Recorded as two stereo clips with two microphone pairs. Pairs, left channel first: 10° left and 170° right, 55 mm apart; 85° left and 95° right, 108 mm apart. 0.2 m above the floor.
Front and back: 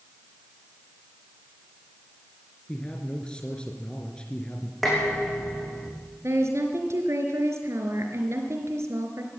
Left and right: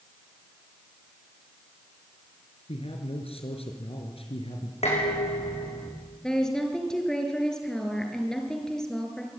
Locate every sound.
2.7 s a man speaking: 85° left, 3.5 m
4.8 s dishes clattering: 100° left, 8 m
6.2 s a woman speaking: 170° left, 4 m